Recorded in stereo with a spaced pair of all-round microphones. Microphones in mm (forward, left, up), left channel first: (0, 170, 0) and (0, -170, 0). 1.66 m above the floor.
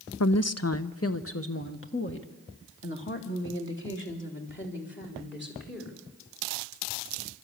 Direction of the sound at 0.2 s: 50° left (ahead or behind).